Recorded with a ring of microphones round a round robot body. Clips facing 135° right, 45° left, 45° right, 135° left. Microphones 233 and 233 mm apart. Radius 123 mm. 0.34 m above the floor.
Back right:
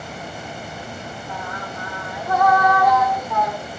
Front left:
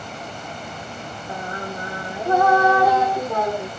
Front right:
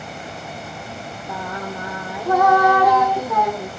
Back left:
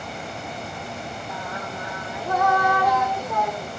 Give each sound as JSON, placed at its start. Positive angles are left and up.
{"t": 1.3, "sound": "singing", "azimuth_deg": -20}